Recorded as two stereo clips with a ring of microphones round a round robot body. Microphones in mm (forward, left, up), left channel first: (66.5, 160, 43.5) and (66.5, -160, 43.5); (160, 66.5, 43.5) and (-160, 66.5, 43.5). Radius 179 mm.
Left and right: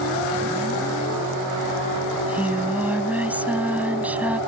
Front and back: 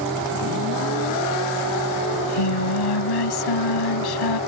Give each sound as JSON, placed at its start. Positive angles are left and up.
{"t": 2.1, "sound": "singing", "azimuth_deg": -5}